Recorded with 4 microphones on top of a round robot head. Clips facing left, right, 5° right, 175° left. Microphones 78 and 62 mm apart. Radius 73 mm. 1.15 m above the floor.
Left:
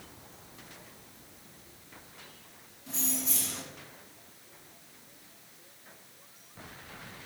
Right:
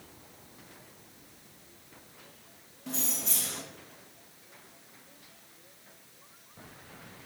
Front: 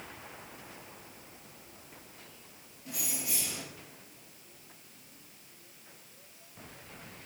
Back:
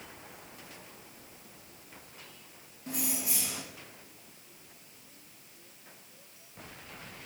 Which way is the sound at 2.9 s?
120° right.